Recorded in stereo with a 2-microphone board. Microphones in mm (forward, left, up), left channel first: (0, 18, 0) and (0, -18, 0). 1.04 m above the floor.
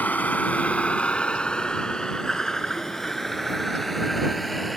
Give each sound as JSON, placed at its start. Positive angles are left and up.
{"t": 0.0, "sound": "a vehicle", "side_deg": 50}